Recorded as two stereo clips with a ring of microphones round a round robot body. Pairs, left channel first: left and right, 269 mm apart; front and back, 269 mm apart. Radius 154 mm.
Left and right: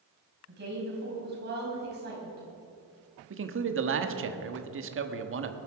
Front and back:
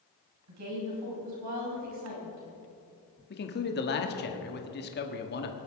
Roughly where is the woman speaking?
Behind right.